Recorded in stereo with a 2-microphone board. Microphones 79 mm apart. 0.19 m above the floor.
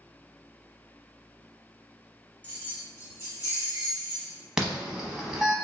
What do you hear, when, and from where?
2.4 s keys jangling: 20° left (ahead or behind), 1.0 m; by 4.4 s 45° left (ahead or behind), 2.5 m
4.6 s an alarm: 5° right (ahead or behind), 0.8 m